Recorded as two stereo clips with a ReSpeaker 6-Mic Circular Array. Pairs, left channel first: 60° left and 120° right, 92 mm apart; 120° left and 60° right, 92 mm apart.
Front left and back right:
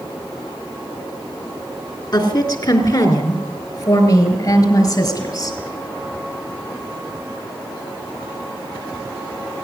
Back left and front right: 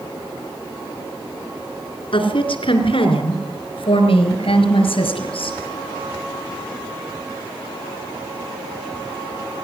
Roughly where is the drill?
I don't hear a drill.